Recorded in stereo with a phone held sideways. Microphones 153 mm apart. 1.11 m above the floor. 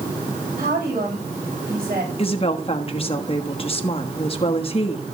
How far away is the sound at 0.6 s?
About 5.5 m.